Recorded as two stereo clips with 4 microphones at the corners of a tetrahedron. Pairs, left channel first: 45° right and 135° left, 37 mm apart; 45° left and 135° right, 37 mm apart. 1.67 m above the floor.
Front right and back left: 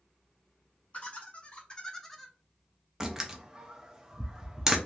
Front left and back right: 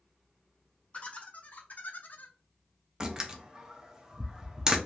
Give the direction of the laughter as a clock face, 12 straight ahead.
12 o'clock.